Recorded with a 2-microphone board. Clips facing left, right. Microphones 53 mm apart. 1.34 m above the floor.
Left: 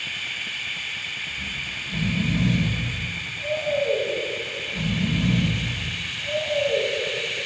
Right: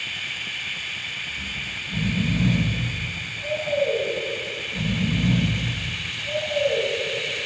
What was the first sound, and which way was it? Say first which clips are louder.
Snoring: even; 5° right (ahead or behind).